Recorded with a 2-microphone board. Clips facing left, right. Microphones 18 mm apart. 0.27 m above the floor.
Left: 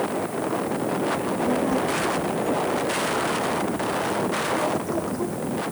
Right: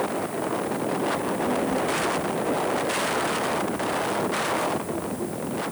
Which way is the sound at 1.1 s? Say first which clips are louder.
Left 1 dB; 55° left (ahead or behind).